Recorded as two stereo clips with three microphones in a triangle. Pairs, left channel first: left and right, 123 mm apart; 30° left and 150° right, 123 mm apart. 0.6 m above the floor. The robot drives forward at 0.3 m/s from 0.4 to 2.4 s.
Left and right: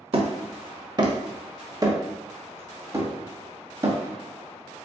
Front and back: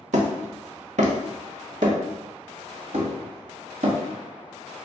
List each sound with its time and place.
0.1 s hammering: 135° right, 0.7 m; by 4.0 s 155° right, 1.2 m